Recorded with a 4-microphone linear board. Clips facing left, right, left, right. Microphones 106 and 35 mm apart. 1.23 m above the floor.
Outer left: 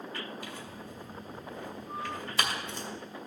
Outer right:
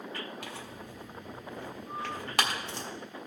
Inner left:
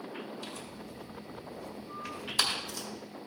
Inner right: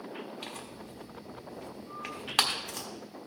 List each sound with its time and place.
0.4 s tearing paper: 75° right (ahead or behind), 1.4 m